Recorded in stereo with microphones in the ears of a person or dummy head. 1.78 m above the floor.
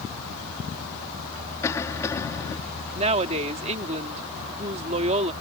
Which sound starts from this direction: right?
A woman speaking, at 3.0 s.